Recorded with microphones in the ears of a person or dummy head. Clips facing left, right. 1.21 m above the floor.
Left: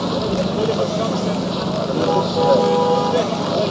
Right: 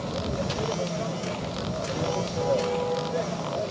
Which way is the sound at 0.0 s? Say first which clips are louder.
Left 10 dB; 80° left.